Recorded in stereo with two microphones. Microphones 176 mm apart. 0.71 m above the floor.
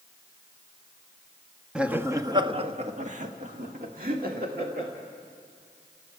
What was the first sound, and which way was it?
Laughter, 5° right (ahead or behind).